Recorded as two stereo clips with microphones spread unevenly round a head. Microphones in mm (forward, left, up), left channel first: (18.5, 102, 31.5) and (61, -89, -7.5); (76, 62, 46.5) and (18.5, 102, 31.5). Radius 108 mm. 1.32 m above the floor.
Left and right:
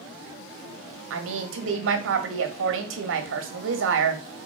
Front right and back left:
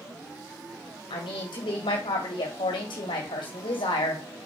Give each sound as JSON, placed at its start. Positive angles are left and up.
{"t": 1.1, "sound": "a woman speaking", "azimuth_deg": -60, "distance_m": 1.8}